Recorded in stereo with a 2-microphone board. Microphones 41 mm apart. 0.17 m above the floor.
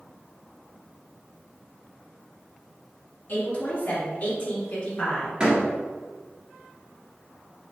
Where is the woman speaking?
45° left (ahead or behind), 1.4 m; by 5.3 s 35° left (ahead or behind), 1.3 m.